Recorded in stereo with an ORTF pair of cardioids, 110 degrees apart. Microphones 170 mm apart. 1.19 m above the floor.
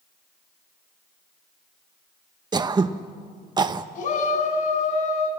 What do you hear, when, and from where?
2.5 s throat clearing: 25° right, 0.9 m
4.0 s a shout: 50° left, 6 m